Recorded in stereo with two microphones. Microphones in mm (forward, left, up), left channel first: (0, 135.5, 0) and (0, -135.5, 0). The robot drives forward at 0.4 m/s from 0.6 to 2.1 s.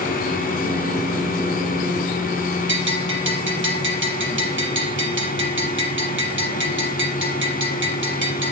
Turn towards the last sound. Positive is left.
turn(degrees=-45)  # may be behind; listen again after turning